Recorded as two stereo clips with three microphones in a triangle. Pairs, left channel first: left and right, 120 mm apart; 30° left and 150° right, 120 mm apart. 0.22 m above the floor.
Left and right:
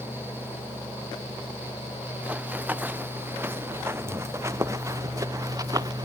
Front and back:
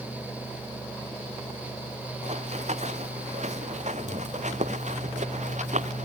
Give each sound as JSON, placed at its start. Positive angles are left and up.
{"t": 2.2, "sound": "running footsteps", "azimuth_deg": -170}